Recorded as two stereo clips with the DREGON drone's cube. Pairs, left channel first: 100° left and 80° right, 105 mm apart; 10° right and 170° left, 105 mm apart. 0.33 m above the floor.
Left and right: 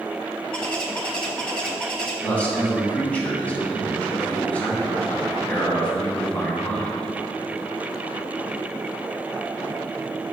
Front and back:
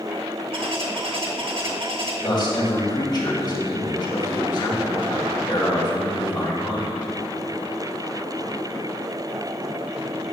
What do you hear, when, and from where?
0.5 s a bird: straight behind, 1.5 m
2.2 s a man speaking: 25° left, 2 m